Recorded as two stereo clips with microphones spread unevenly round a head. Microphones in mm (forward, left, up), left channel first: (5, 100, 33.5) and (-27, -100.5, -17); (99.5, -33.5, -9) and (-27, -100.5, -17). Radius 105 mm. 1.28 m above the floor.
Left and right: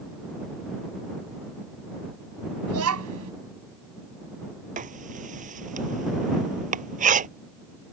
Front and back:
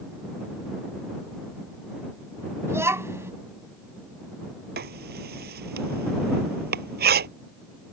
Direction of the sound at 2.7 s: 80° right.